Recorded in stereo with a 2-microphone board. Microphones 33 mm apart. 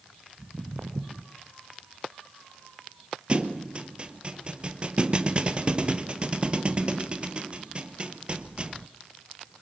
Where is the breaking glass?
No breaking glass in this recording.